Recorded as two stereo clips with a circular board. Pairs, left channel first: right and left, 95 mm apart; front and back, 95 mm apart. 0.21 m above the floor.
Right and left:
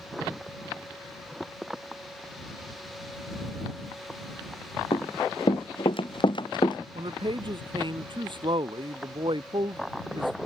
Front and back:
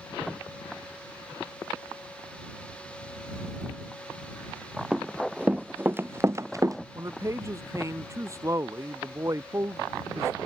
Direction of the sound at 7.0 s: 120° left.